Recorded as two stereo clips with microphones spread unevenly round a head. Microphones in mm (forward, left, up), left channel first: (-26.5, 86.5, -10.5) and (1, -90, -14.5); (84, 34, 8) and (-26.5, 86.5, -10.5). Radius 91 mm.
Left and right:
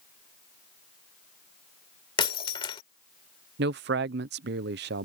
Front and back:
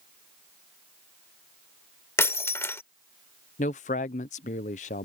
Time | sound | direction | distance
2.2 | breaking glass | 40° left | ?
3.6 | a man speaking | 50° right | ?